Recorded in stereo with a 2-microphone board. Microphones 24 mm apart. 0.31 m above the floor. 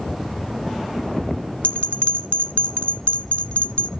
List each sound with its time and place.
1.6 s a bell: 60° left (ahead or behind), 0.5 m